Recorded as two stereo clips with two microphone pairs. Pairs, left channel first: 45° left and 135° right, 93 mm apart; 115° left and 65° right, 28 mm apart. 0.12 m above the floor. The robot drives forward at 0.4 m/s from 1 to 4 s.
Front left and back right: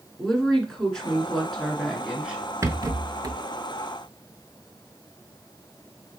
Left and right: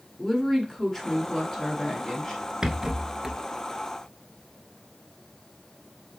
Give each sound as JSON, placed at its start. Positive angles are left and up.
{"t": 0.2, "sound": "a woman speaking", "azimuth_deg": 120, "distance_m": 1.1}
{"t": 2.6, "sound": "a rattle", "azimuth_deg": -115, "distance_m": 0.5}